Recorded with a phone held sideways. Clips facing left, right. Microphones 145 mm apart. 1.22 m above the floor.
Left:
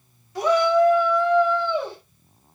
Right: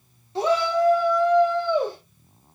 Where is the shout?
25° right (ahead or behind), 2.5 m; by 2.0 s 45° right (ahead or behind), 4 m.